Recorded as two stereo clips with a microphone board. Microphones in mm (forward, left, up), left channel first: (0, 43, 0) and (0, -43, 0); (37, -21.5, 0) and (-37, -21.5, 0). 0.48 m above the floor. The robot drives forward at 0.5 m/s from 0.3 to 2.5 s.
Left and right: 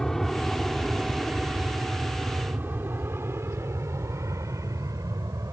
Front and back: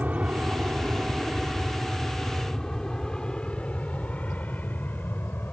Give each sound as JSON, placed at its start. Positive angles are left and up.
{"t": 0.0, "sound": "an aircraft", "azimuth_deg": 165}